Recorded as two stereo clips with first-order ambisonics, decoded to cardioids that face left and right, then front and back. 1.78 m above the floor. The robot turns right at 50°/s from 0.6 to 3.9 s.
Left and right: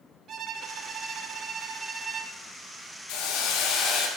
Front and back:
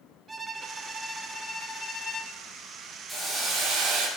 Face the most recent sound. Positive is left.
turn(degrees=135)